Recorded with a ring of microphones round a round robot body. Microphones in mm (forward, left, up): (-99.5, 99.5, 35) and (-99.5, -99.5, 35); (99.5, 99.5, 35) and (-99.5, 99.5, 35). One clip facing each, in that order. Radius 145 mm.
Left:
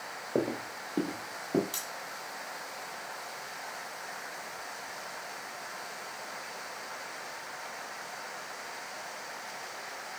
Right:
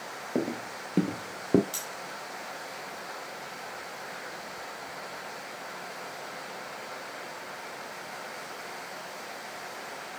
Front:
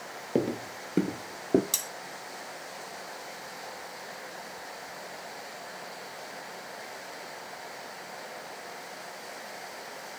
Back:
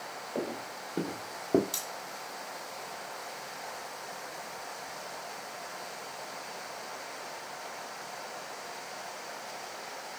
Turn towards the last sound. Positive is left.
turn(degrees=-10)